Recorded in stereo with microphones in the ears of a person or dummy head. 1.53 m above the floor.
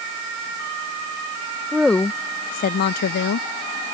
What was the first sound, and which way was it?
A woman speaking, 5° right (ahead or behind).